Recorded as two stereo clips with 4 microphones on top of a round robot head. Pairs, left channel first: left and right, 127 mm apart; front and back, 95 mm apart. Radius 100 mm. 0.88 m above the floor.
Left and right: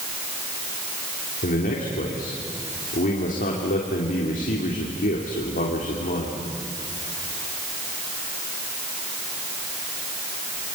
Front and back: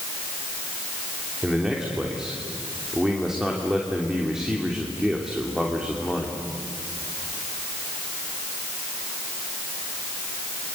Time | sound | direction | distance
1.4 | a man speaking | 95° left | 3 m